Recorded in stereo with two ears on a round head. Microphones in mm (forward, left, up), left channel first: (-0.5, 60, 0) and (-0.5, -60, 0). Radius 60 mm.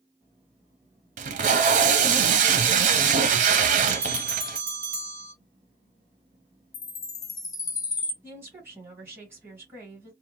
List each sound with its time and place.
1.2 s tape being pulled: 60° right (ahead or behind), 0.6 m
3.9 s a bell: 20° right (ahead or behind), 1.6 m
6.7 s a chime: 25° left (ahead or behind), 0.8 m
8.2 s a woman speaking: 15° right (ahead or behind), 1.8 m